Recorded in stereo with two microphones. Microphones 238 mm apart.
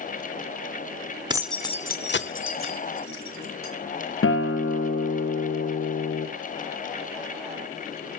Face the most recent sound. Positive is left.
turn(degrees=60)  # may be behind; listen again after turning